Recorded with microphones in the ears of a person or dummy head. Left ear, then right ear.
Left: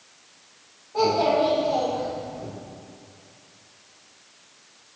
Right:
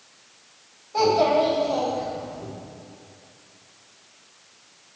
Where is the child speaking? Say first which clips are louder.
Right 2 dB; 80° right, 3 m; by 2.5 s 85° right, 4 m.